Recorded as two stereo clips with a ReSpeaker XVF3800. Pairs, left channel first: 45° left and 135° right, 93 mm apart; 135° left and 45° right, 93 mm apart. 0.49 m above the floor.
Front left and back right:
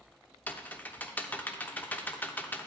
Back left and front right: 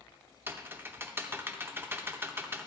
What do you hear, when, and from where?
0.5 s typing on a keyboard: 10° right, 0.6 m